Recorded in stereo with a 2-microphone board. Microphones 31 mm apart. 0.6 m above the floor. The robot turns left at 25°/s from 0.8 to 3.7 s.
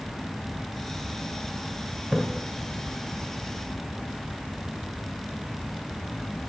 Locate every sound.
2.1 s a splash: 30° right (ahead or behind), 1.0 m; by 2.2 s 25° right (ahead or behind), 1.0 m